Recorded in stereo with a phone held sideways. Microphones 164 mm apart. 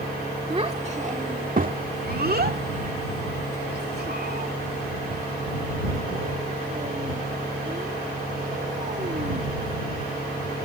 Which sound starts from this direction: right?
A child speaking, at 0.5 s.